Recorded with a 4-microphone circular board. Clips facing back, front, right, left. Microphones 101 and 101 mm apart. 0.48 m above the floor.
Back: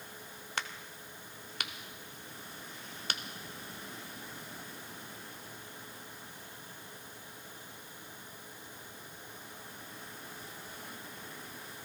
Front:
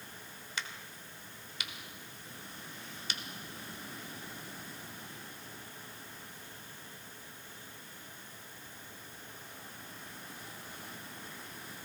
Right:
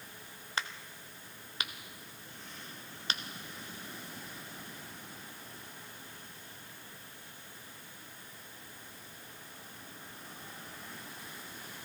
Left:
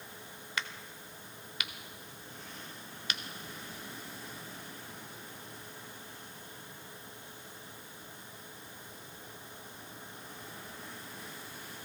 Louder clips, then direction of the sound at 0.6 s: Back 3 dB, right 1 dB; 145° right.